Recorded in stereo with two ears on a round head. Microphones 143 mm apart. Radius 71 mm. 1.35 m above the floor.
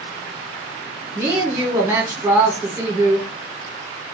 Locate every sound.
1.1 s a woman speaking: 10° right (ahead or behind), 1.9 m